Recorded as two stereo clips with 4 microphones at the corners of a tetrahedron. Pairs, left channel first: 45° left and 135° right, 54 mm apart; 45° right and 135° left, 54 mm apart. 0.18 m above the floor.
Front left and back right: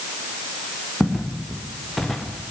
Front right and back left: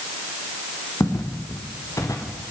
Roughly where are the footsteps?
Ahead right.